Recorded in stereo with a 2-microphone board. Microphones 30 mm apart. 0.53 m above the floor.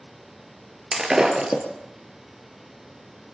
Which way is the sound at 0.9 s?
15° right (ahead or behind).